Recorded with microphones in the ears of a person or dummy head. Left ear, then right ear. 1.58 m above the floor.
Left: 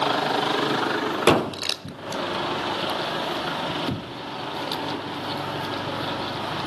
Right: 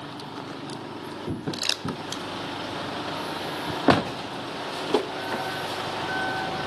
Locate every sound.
1.5 s crumpling: 5° right (ahead or behind), 0.7 m